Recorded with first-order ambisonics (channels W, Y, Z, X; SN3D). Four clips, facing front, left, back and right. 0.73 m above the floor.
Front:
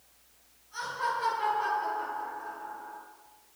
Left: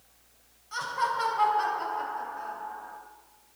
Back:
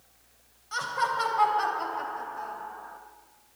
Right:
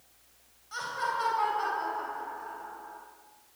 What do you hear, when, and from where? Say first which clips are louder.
0.7 s laughter: left 3 dB, back 4 dB; 175° left, 3.5 m; by 3.0 s 150° left, 3 m